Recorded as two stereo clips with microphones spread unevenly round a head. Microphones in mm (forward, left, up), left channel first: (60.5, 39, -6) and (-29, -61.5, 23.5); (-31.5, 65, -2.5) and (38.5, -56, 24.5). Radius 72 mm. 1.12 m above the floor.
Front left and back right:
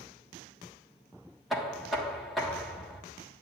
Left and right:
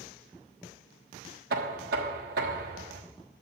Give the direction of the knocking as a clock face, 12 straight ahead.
1 o'clock.